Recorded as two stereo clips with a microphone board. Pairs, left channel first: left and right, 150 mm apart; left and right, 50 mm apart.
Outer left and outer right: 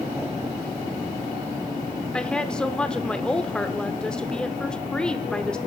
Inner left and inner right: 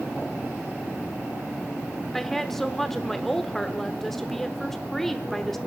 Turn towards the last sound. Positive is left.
turn(degrees=5)  # may be behind; listen again after turning